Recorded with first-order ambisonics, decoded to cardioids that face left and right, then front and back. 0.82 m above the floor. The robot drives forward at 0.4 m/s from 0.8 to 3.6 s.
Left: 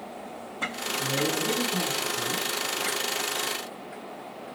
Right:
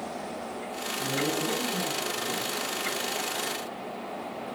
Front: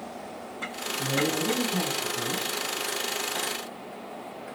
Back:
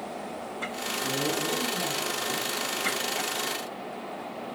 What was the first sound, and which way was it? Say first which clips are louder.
A man speaking: left 2 dB, front 3 dB; 15° left.